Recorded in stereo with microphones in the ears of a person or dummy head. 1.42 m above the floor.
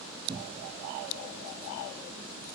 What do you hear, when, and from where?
0.3 s a cupboard door: 30° right (ahead or behind), 1.3 m